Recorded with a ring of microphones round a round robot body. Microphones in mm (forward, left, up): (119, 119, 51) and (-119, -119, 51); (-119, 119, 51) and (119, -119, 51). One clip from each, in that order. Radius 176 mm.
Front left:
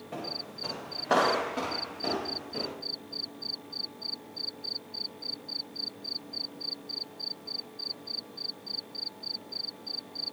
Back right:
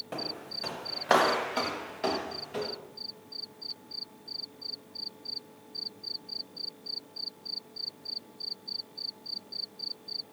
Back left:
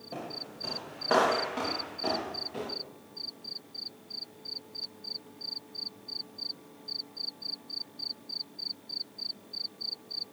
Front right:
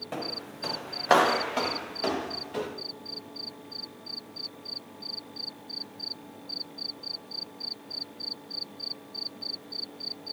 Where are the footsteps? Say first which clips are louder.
Front left 1 dB, front right 3 dB; 75° right, 3 m; by 2.7 s 100° right, 5.5 m.